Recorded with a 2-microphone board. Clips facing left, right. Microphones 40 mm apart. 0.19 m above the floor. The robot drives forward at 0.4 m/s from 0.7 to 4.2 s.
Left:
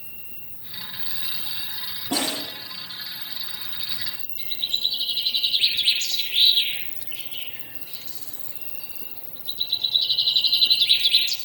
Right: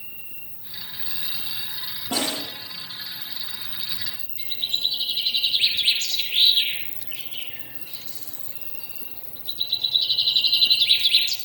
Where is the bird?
20° right (ahead or behind), 4.5 m.